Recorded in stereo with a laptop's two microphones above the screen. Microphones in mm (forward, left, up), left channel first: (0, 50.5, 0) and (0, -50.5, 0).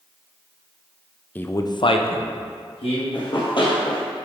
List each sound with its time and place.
1.4 s a man speaking: 15° left (ahead or behind), 0.5 m; by 3.0 s 65° left (ahead or behind), 1.2 m
3.1 s running footsteps: 50° left (ahead or behind), 1.6 m